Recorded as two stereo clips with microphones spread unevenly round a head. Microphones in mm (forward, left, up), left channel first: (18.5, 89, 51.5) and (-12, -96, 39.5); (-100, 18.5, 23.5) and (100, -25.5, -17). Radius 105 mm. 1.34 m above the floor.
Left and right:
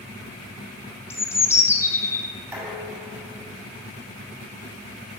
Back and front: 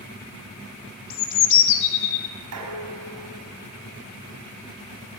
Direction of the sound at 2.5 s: 20° right.